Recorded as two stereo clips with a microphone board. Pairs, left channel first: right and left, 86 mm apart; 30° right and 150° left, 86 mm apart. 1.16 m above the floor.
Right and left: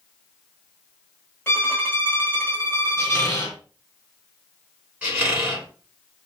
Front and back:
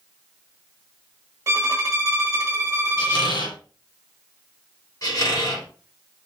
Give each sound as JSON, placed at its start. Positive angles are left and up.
{"t": 1.5, "sound": "a violin", "azimuth_deg": -155, "distance_m": 1.4}
{"t": 3.0, "sound": "a squeak", "azimuth_deg": -35, "distance_m": 2.0}
{"t": 5.0, "sound": "a squeak", "azimuth_deg": 15, "distance_m": 2.5}